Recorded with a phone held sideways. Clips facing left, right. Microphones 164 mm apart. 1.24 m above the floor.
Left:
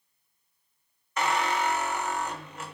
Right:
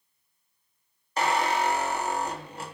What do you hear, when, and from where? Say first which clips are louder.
1.2 s a squeak: right 2 dB; 35° right (ahead or behind), 0.7 m